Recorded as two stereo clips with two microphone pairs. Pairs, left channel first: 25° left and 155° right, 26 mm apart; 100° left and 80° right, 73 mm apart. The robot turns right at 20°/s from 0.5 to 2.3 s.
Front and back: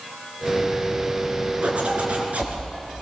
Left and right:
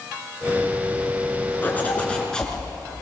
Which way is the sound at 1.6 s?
165° left.